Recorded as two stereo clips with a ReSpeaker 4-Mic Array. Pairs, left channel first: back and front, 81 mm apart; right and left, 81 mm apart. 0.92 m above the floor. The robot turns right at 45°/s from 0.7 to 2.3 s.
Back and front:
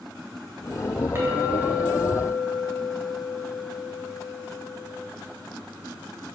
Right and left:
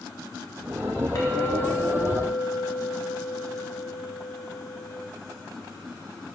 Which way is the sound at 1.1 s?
55° right.